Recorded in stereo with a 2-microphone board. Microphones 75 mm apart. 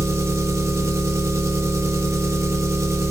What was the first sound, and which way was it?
An engine running, 35° right (ahead or behind).